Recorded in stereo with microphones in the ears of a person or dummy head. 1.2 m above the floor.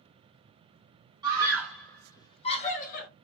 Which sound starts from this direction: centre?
A scream, at 1.2 s.